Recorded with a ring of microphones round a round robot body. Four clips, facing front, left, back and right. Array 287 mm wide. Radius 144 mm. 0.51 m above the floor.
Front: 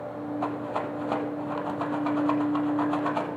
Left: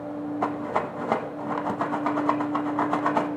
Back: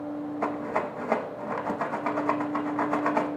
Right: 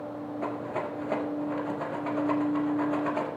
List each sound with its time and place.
0.4 s a rattle: 100° left, 1.1 m